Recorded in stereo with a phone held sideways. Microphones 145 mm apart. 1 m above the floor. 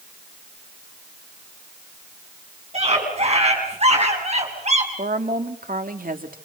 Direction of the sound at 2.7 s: 50° right (ahead or behind).